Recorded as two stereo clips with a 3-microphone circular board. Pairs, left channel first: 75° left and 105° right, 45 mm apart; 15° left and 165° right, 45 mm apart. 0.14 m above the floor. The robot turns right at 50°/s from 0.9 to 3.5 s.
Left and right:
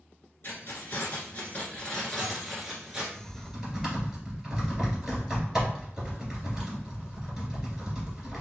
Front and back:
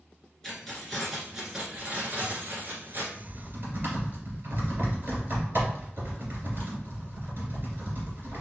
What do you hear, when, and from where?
0.4 s keys jangling: 95° left, 1.4 m; by 3.0 s 160° right, 1.4 m
3.1 s typing on a keyboard: 165° left, 2.5 m; by 8.4 s 175° right, 2.5 m